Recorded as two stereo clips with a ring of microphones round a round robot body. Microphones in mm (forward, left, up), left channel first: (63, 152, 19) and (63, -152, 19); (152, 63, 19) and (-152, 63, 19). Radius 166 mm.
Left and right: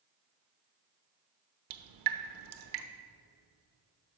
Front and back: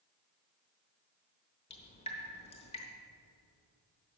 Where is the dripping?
75° right, 0.8 m.